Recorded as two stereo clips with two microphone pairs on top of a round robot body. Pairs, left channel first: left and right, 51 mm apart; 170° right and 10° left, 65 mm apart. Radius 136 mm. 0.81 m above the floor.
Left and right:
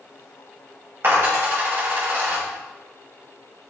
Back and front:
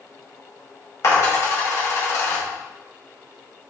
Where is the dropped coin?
135° right, 2.5 m.